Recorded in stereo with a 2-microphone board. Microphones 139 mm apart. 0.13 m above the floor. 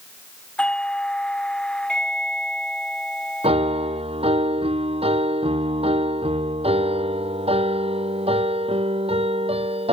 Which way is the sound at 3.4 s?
40° right (ahead or behind).